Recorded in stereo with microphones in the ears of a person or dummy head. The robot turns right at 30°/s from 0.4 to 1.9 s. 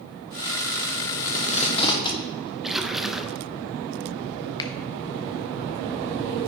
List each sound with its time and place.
1.2 s tape being pulled: 45° left (ahead or behind), 1.3 m; by 2.5 s 25° left (ahead or behind), 1.3 m
2.6 s a splash: centre (ahead or behind), 0.9 m
4.6 s a finger snap: 20° left (ahead or behind), 0.6 m